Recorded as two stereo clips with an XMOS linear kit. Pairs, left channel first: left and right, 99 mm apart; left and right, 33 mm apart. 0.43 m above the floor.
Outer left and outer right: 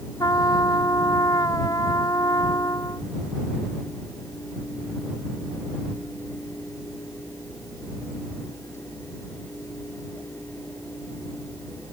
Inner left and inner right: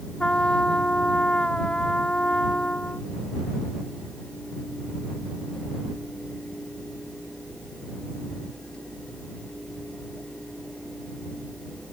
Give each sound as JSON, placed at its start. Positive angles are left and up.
{"t": 0.2, "sound": "a trumpet", "side_deg": 40}